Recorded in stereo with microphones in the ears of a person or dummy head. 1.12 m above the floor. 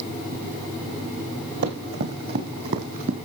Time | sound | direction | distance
1.6 | running footsteps | 55° right (ahead or behind) | 3 m